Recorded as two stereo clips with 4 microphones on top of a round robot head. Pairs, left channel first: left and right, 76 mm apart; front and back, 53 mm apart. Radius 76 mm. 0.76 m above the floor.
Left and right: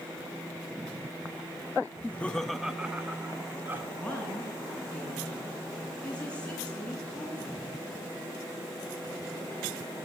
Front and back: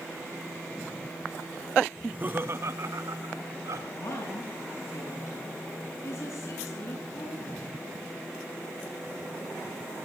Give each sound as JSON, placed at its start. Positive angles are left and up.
{"t": 2.0, "sound": "laughter", "azimuth_deg": 115, "distance_m": 1.0}
{"t": 3.9, "sound": "a woman speaking", "azimuth_deg": 15, "distance_m": 9.5}